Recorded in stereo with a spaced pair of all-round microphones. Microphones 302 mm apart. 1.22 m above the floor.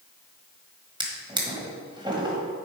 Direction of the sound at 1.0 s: 15° right (ahead or behind).